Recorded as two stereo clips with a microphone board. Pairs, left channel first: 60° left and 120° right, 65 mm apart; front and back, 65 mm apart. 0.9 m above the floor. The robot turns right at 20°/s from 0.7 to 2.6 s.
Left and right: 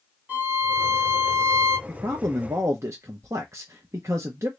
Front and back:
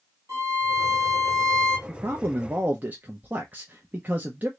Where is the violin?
175° left, 1.5 m; by 1.8 s 160° right, 1.5 m.